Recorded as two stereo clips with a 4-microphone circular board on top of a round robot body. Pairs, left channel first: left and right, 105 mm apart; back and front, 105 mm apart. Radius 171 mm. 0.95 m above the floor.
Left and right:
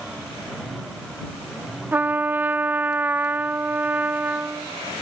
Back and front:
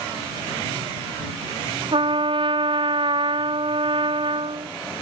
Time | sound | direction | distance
1.9 | a trumpet | 20° right | ?